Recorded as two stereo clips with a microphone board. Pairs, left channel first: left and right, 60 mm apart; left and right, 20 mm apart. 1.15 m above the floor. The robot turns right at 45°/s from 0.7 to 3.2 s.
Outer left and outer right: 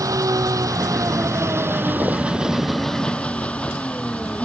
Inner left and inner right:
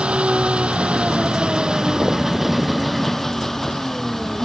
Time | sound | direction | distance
0.0 | an engine running | 90° right | ?